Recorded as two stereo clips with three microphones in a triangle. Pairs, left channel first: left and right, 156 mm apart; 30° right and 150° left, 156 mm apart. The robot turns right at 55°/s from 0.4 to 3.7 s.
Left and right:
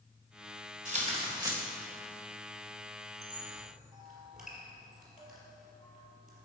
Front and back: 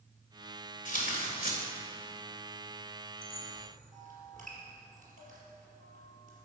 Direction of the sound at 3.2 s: 155° left.